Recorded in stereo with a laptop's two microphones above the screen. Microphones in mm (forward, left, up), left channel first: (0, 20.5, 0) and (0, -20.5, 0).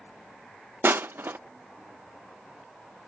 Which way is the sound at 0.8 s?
65° right (ahead or behind).